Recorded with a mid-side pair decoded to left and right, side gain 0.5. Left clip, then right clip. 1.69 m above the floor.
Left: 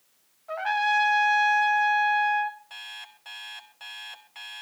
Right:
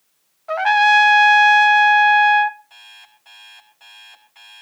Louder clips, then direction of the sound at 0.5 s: Right 11 dB; 60° right.